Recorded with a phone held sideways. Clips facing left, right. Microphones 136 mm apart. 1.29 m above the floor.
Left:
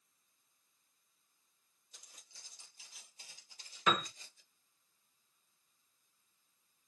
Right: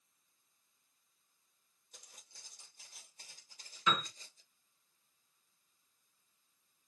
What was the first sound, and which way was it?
Footsteps, 50° right (ahead or behind).